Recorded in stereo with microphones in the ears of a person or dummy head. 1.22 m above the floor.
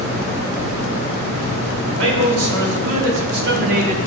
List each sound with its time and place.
1.8 s a man speaking: 80° right, 3 m; by 4.0 s 30° right (ahead or behind), 1.2 m